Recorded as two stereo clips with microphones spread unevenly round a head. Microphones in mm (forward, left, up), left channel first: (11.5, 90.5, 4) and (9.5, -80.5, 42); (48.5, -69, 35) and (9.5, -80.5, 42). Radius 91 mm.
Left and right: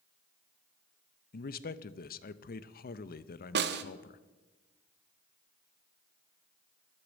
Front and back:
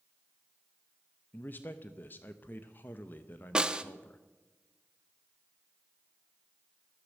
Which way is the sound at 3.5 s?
90° right.